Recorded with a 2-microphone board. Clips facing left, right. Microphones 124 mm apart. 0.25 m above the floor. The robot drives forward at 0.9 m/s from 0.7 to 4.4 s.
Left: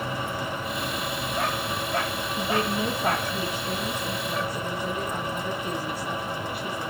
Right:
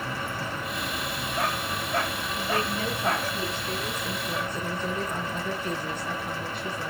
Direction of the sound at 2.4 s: 20° left (ahead or behind).